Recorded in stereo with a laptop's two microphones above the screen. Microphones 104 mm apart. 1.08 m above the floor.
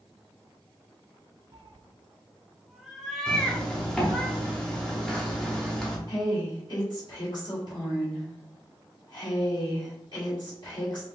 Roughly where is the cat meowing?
Right.